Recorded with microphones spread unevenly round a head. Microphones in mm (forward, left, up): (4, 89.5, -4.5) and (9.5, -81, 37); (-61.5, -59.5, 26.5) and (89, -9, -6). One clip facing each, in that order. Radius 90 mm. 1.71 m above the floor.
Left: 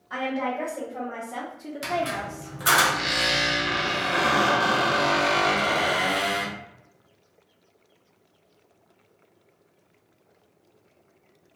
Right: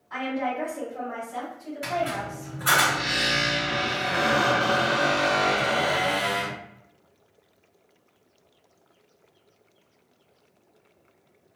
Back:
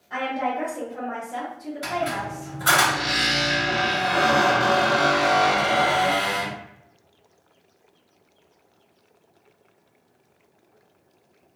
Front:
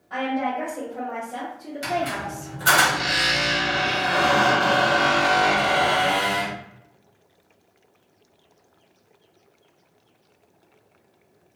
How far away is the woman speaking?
About 1.5 m.